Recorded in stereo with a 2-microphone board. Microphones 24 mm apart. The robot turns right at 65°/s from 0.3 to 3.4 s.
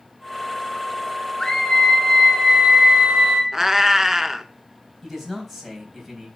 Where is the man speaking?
5° right (ahead or behind), 3.5 m.